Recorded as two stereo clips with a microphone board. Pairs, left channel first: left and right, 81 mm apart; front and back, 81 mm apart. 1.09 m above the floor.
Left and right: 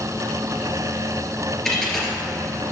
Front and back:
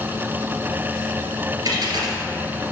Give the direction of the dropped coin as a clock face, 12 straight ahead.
6 o'clock.